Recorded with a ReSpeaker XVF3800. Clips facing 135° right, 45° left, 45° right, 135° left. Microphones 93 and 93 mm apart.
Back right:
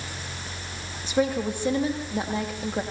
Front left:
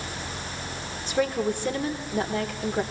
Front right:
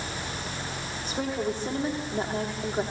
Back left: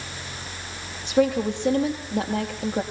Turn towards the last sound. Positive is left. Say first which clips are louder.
# back right 1 dB, back left 9 dB
turn(degrees=150)